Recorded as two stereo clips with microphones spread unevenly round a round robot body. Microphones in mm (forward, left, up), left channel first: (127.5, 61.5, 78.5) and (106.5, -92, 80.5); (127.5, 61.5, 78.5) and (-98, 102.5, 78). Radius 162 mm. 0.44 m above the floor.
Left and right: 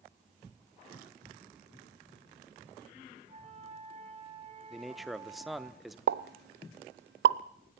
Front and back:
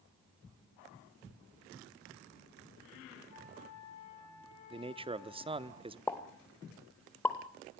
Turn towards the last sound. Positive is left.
turn(degrees=-95)